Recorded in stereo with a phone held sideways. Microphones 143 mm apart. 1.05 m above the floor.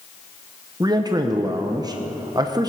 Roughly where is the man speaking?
Right.